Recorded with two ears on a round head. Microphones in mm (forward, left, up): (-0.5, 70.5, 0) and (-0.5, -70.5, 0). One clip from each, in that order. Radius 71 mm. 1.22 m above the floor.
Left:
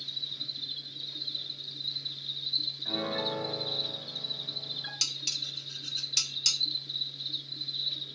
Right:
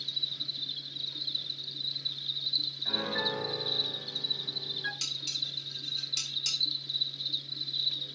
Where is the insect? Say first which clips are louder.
Right 2 dB; 10° right (ahead or behind), 0.9 m.